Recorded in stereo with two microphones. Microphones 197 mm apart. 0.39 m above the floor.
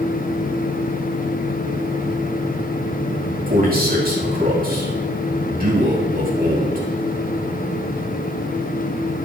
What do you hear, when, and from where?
3.5 s a man speaking: 50° right (ahead or behind), 3 m